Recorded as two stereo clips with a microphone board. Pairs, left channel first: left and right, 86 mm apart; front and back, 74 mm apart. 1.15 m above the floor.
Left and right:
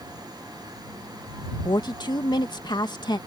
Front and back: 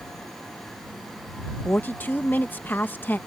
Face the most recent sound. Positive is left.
turn(degrees=60)